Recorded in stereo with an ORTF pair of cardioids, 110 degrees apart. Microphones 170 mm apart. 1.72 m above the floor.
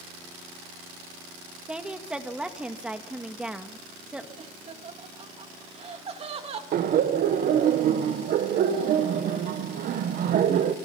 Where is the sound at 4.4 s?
35° right, 3 m.